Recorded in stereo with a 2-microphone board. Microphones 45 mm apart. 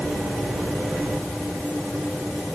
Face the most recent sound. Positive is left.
No sound to turn to.